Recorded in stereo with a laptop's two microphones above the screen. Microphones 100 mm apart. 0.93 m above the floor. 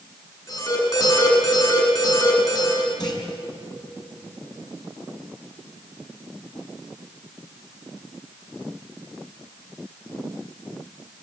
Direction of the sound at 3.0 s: 45° left (ahead or behind).